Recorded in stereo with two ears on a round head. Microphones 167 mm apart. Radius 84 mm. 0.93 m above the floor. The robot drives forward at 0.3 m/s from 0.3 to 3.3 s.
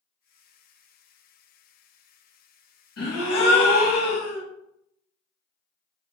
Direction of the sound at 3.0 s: 80° left.